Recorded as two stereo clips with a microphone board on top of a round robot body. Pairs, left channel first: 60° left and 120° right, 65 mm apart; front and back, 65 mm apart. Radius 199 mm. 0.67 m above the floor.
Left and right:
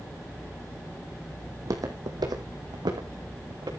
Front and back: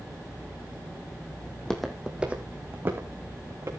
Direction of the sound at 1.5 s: 70° right.